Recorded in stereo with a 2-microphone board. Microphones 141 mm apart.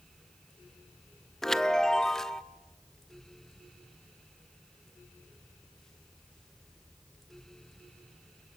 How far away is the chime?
About 0.5 m.